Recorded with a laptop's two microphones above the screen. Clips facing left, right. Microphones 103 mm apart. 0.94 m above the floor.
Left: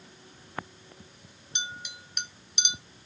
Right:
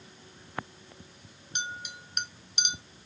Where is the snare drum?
No snare drum in this recording.